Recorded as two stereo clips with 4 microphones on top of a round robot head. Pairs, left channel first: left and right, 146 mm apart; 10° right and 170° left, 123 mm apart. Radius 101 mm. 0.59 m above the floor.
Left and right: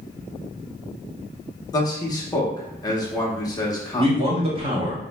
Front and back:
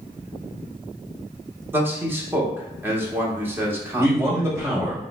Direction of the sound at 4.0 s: 125° right.